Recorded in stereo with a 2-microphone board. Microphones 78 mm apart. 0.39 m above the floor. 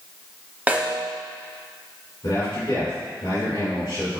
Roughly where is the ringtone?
No ringtone in this recording.